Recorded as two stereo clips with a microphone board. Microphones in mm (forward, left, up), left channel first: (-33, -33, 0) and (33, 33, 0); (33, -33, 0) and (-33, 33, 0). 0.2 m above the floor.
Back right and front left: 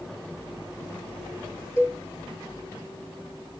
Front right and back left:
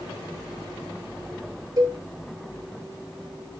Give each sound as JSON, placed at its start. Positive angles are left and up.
{"t": 1.8, "sound": "a cowbell", "azimuth_deg": 170, "distance_m": 1.5}